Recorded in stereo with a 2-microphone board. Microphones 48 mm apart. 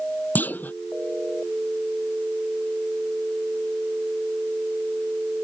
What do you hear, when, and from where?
0.3 s a clunk: 40° left (ahead or behind)